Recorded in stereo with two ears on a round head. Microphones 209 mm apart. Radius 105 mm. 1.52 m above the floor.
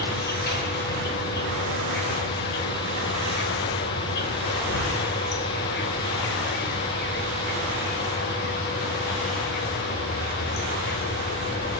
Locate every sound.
0.0 s an insect: 45° left (ahead or behind), 3 m